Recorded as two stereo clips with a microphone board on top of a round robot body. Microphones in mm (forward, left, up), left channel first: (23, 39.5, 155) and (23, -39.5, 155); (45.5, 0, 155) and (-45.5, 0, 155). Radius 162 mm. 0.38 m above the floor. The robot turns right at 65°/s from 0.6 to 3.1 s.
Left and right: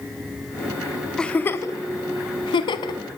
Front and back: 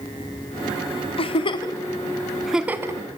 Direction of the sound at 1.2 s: 10° left.